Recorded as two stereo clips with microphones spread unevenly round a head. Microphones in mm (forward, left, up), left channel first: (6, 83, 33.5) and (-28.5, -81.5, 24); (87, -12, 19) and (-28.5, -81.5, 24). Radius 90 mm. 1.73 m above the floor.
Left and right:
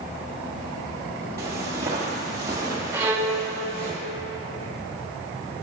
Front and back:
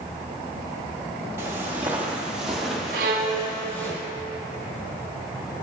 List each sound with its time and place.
1.4 s footsteps: 145° right, 1.8 m; by 3.9 s 35° right, 2.0 m
2.9 s a violin: straight behind, 0.8 m